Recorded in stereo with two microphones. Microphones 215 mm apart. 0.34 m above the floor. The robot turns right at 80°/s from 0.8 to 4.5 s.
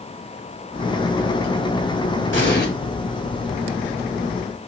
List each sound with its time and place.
2.3 s an explosion: 80° left, 2.5 m; by 2.7 s 55° left (ahead or behind), 2.5 m